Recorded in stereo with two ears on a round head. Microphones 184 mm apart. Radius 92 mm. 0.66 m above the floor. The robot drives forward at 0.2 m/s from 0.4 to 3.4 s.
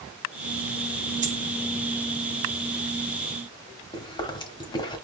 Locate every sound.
1.2 s a dropped coin: 35° right (ahead or behind), 1.3 m
3.9 s chewing: 20° left (ahead or behind), 1.3 m